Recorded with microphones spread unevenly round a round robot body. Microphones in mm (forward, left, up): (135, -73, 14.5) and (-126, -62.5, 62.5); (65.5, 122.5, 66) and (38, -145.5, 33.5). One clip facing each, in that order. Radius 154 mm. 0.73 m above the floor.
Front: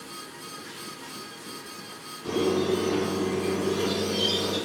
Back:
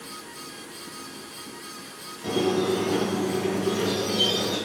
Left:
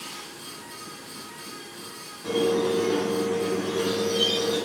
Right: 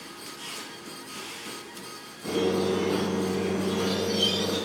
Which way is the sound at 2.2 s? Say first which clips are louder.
Back 1 dB, left 2 dB; 175° left.